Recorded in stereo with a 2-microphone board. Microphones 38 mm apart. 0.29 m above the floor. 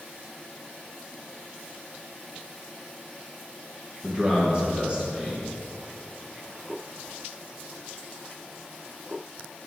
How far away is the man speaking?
About 2.5 m.